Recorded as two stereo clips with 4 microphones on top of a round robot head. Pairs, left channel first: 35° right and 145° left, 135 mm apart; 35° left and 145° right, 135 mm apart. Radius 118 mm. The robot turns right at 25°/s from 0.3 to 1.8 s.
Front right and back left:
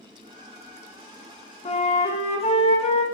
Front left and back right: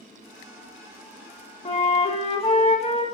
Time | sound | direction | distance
1.6 | a flute | 5° right | 1.2 m